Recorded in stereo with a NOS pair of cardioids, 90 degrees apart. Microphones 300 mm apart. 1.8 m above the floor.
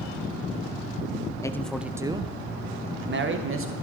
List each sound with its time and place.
1.4 s a man speaking: 10° left, 1.3 m; by 3.7 s 45° right, 2.5 m